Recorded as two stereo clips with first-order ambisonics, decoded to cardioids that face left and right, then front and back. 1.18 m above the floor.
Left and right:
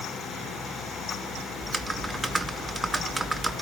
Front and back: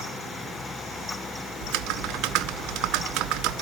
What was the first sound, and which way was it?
Typing on a keyboard, 170° right.